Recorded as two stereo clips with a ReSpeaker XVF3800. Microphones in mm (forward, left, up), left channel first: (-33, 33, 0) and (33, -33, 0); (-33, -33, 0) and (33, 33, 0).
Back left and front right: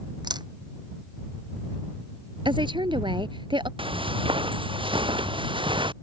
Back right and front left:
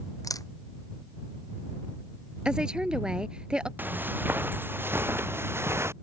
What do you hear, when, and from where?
0.2 s a camera shutter: 80° right
2.5 s a woman speaking: 35° right
3.8 s footsteps: 25° right; by 5.9 s 15° right